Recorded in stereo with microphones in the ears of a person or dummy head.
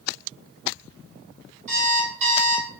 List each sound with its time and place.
1.7 s an alarm clock: 35° right (ahead or behind), 1.5 m